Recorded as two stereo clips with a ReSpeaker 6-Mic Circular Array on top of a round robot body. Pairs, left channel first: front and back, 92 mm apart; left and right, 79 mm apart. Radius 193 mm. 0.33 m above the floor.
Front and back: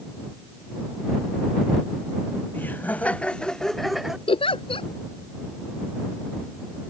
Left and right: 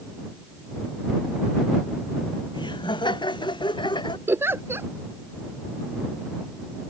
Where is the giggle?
25° right.